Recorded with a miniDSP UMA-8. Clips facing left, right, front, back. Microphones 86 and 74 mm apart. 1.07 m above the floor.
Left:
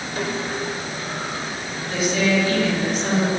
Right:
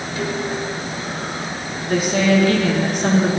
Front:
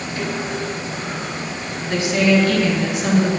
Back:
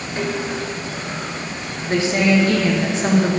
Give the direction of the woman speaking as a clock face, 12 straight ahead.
4 o'clock.